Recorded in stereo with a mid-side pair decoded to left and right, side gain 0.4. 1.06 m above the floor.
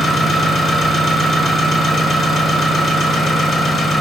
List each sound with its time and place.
0.0 s an engine running: 60° left, 1.0 m